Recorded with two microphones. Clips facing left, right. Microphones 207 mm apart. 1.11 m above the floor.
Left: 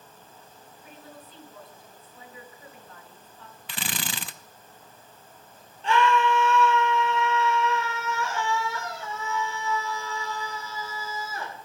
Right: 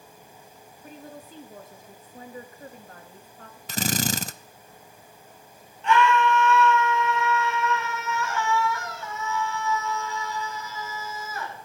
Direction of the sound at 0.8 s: 45° right (ahead or behind).